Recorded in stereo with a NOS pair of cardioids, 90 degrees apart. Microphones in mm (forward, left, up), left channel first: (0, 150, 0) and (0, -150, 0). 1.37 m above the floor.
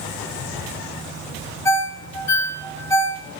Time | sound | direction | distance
1.6 | a ringtone | 10° left | 1.0 m